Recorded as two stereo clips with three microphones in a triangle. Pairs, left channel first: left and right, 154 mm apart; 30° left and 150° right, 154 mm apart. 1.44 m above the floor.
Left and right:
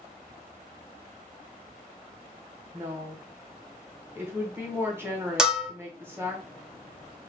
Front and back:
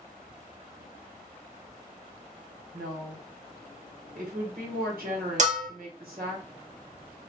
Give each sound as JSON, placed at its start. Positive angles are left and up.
{"t": 2.7, "sound": "a woman speaking", "azimuth_deg": -165, "distance_m": 1.2}
{"t": 5.4, "sound": "a bell", "azimuth_deg": -175, "distance_m": 0.7}